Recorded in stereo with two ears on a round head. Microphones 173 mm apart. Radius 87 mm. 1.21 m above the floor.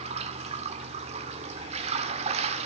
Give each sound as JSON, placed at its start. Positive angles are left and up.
{"t": 0.0, "sound": "running water", "side_deg": -35, "distance_m": 1.4}